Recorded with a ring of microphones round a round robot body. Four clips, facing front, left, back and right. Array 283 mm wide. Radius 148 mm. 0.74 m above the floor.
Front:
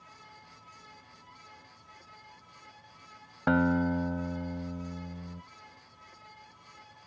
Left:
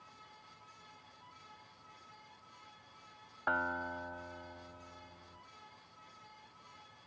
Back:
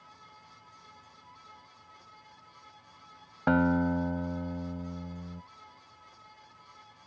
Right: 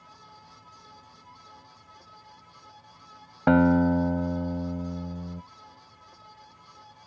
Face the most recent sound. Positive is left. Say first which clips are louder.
# right 17 dB, back 1 dB
turn(degrees=-85)